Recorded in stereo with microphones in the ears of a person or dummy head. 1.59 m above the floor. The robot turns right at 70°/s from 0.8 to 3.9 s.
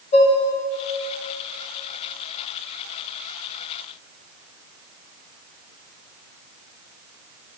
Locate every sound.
0.1 s dishes clattering: 30° left (ahead or behind), 2 m